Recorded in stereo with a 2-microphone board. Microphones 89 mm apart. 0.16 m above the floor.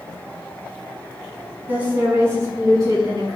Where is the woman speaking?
20° right (ahead or behind), 1.6 m; by 3.4 s 45° right (ahead or behind), 1.9 m.